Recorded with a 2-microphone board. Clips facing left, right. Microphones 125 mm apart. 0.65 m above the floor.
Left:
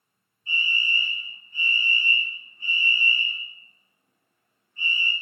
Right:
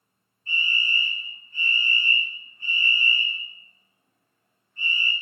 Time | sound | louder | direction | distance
0.5 | a fire alarm | even | 15° left (ahead or behind) | 1.9 m